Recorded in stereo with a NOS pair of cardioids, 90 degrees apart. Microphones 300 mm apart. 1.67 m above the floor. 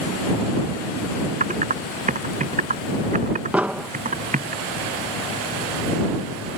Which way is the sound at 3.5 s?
5° right.